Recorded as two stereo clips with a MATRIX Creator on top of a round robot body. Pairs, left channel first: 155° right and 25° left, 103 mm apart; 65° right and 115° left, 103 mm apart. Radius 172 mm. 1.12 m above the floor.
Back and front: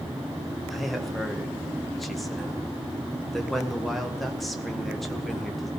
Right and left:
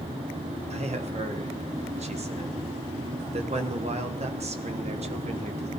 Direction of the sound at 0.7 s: 115° left.